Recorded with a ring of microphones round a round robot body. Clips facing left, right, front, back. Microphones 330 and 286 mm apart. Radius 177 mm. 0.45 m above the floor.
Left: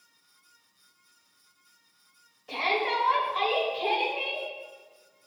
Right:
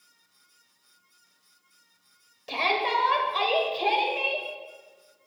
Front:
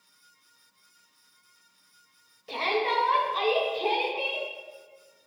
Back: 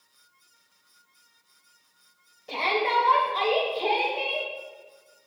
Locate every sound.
2.5 s a shout: 70° right, 2 m